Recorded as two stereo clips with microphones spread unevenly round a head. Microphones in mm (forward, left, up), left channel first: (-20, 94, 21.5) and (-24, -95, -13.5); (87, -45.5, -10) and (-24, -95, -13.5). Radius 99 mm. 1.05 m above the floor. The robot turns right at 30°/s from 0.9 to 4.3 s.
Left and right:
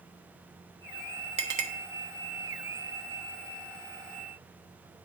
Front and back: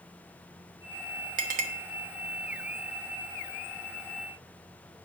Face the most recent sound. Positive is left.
turn(degrees=-60)